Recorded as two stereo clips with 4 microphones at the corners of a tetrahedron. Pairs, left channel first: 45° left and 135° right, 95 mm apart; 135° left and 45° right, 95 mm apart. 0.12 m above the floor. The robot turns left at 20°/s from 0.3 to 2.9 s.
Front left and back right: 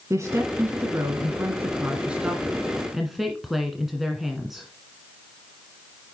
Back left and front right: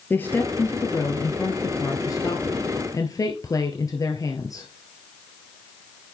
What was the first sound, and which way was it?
A woman speaking, 170° right.